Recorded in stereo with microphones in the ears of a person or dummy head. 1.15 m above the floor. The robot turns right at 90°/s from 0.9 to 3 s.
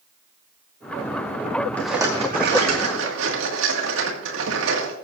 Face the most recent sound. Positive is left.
turn(degrees=-85)